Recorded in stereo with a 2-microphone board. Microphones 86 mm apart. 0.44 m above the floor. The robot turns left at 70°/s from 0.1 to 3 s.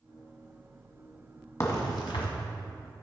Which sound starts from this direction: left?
A crack, at 1.6 s.